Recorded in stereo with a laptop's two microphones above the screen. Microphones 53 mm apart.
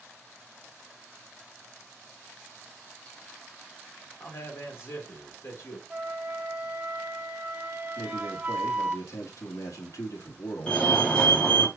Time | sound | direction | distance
4.2 | a man speaking | 55° left (ahead or behind) | 3 m
5.9 | a flute | 20° right (ahead or behind) | 1.0 m
8.0 | a man speaking | 85° left | 1.8 m
10.7 | a fire alarm | 20° left (ahead or behind) | 1.8 m